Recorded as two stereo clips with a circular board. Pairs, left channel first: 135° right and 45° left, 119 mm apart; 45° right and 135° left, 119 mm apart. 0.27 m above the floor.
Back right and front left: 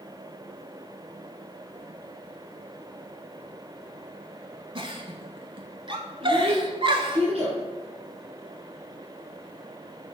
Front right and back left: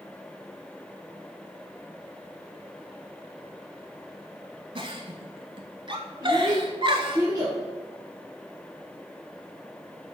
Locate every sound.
4.8 s a giggle: 90° left, 0.7 m
6.2 s a child speaking: 75° left, 2.0 m